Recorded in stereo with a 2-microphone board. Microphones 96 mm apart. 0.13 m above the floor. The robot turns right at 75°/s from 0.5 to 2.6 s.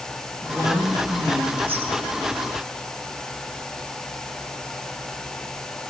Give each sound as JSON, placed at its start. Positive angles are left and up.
{"t": 0.4, "sound": "a woman speaking", "azimuth_deg": 175, "distance_m": 7.5}